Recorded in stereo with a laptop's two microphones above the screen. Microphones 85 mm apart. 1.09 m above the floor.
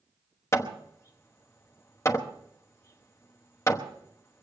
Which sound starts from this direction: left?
Hammering, at 0.5 s.